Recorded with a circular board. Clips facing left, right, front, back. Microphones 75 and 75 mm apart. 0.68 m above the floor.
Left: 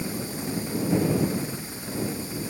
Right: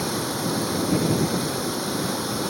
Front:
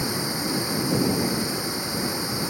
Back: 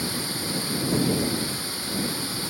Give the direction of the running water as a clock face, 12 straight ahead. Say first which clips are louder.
Right 5 dB, front 3 dB; 2 o'clock.